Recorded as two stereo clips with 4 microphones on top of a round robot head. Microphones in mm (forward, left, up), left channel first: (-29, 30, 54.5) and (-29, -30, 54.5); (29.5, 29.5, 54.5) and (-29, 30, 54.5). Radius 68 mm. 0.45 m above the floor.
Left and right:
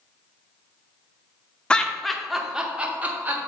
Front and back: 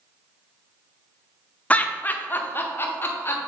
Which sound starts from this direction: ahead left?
Laughter, at 1.7 s.